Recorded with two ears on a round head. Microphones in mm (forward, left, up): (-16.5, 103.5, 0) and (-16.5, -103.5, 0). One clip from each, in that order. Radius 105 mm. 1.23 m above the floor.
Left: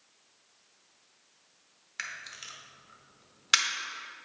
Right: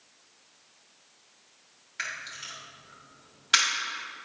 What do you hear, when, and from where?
2.0 s a camera shutter: 35° left (ahead or behind), 1.0 m